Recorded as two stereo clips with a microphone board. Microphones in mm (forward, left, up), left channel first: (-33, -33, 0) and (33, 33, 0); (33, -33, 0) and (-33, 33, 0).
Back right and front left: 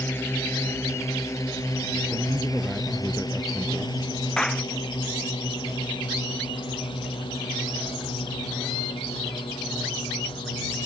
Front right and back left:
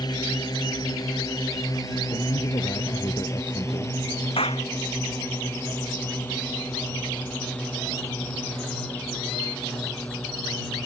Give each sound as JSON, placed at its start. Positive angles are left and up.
{"t": 0.0, "sound": "a drone", "azimuth_deg": -75}
{"t": 2.1, "sound": "a man speaking", "azimuth_deg": -40}
{"t": 4.4, "sound": "a clap", "azimuth_deg": -50}